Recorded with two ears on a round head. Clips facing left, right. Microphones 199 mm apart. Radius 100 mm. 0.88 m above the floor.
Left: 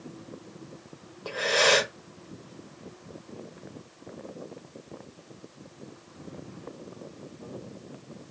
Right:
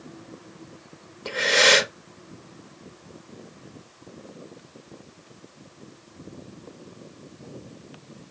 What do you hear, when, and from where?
1.2 s breathing: 30° right (ahead or behind), 0.6 m